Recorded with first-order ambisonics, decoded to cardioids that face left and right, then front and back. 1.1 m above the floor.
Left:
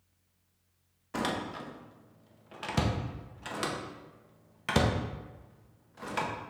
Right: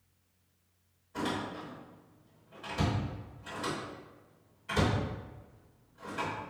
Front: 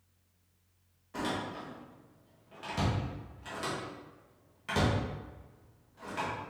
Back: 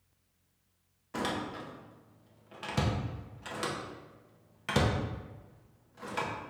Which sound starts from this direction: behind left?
A door slam, at 1.1 s.